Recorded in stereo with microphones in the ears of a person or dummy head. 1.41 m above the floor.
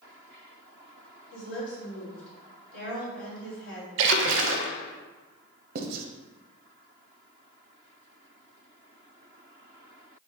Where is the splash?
70° right (ahead or behind), 0.5 m.